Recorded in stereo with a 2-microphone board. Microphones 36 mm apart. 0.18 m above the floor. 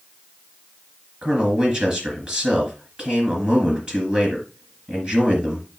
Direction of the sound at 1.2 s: 35° right (ahead or behind).